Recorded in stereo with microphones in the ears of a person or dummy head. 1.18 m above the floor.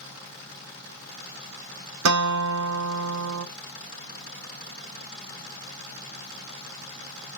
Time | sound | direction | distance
2.0 | a guitar | 80° right | 0.8 m